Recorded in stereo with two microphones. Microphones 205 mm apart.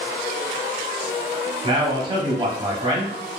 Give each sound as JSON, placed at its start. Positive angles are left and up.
{"t": 1.6, "sound": "a man speaking", "side_deg": -25, "distance_m": 1.0}